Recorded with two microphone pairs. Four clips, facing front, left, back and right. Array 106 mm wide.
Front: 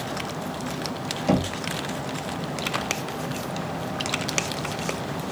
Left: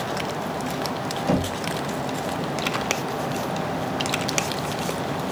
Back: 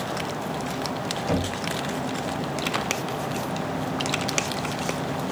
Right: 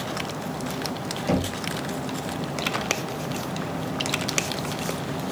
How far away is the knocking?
About 2.5 m.